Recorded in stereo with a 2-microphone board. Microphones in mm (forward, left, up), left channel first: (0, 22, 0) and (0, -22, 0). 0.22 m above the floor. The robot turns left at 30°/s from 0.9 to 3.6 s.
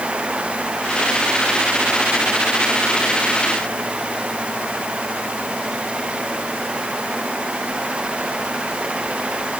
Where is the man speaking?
I don't hear a man speaking.